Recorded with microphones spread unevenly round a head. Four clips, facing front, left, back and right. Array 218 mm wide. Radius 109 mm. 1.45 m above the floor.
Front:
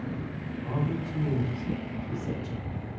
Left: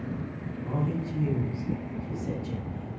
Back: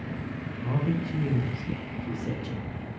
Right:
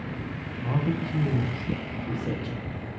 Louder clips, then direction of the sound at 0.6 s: Right 3 dB, back 2 dB; 140° right.